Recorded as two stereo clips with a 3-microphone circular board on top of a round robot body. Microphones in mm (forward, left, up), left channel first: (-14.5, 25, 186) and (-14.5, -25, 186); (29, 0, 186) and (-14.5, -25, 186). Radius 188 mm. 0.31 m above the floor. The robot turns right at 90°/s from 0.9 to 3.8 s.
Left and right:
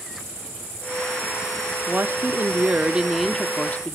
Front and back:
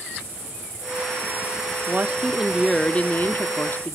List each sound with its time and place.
1.9 s a woman speaking: 120° right, 1.1 m; by 4.0 s 55° left, 1.1 m